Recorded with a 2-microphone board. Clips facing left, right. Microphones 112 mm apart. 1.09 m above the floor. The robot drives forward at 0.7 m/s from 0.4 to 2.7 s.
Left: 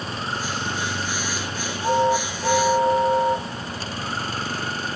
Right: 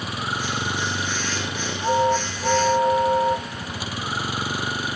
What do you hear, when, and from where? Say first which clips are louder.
0.0 s a vehicle: even; 10° right (ahead or behind)